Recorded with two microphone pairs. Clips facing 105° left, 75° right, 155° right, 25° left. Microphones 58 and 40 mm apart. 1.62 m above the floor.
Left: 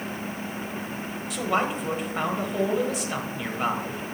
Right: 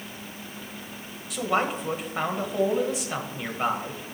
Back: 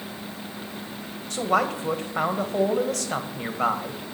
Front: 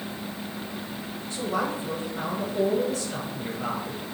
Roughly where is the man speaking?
Behind.